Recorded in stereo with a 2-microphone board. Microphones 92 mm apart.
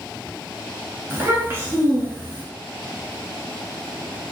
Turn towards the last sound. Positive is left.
turn(degrees=-30)  # may be behind; listen again after turning